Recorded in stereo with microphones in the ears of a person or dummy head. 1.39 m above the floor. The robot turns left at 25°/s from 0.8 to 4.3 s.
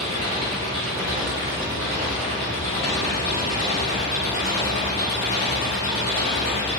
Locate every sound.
0.0 s an engine running: 145° right, 3 m; by 6.8 s 130° left, 3 m